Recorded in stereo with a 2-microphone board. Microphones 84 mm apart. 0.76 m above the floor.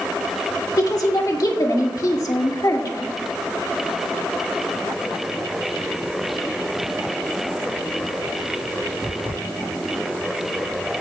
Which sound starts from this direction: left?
A woman speaking, at 0.8 s.